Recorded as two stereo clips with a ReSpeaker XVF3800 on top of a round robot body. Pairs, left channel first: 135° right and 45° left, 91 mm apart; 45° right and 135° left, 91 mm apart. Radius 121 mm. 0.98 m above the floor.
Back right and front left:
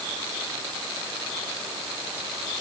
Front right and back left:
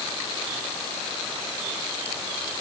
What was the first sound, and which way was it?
Only background noise.